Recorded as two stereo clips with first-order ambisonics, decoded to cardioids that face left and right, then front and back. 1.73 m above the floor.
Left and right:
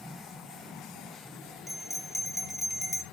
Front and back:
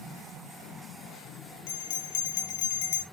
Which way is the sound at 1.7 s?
10° left.